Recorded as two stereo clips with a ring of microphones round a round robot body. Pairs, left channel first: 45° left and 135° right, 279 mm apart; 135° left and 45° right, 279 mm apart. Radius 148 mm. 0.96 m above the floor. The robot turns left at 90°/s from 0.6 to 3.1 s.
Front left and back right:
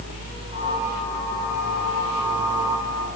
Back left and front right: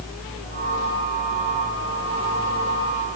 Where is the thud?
No thud in this recording.